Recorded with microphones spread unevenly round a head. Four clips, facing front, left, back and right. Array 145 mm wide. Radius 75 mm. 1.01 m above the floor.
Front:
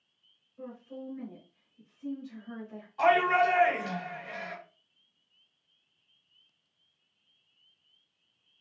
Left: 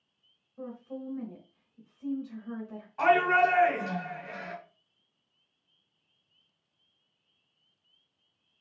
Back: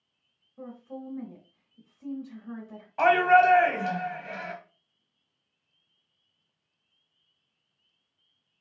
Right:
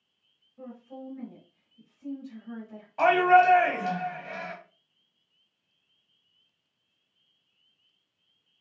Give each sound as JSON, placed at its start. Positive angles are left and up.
{"t": 0.6, "sound": "a woman speaking", "azimuth_deg": 140, "distance_m": 1.2}
{"t": 3.0, "sound": "a shout", "azimuth_deg": -130, "distance_m": 1.6}